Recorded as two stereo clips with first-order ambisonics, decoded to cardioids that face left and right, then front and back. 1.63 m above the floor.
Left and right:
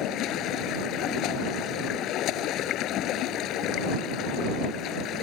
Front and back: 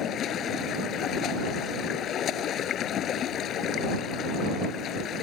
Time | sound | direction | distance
0.0 | running water | 50° left | ?